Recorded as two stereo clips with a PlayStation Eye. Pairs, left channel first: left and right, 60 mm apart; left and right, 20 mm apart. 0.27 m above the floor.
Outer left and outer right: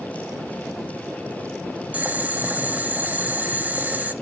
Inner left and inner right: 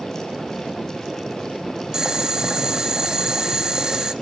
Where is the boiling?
25° right (ahead or behind), 0.7 m.